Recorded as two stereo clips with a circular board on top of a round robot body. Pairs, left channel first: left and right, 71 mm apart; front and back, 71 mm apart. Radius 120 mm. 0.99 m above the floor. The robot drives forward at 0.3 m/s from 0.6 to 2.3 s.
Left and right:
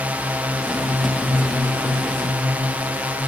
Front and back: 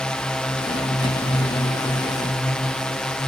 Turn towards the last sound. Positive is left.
turn(degrees=-65)